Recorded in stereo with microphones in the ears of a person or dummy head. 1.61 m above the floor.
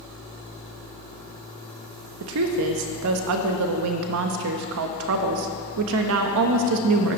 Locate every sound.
2.2 s a woman speaking: 60° right (ahead or behind), 0.5 m